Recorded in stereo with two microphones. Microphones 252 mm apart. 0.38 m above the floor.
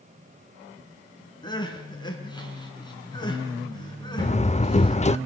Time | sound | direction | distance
1.4 | crying | 15° left (ahead or behind) | 3.5 m
4.2 | a door slam | 25° left (ahead or behind) | 0.5 m